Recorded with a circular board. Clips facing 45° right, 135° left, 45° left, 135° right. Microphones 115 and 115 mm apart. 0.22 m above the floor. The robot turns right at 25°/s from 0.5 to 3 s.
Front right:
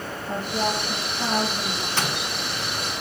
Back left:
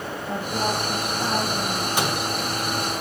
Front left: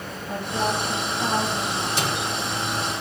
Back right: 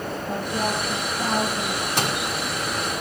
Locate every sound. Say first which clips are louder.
0.3 s a woman speaking: even, front left 1 dB; 135° right, 7.5 m; by 1.9 s 100° right, 7.5 m
2.0 s a microwave: back left 3 dB, back right 3 dB; 150° right, 1.8 m; by 2.2 s 145° right, 1.8 m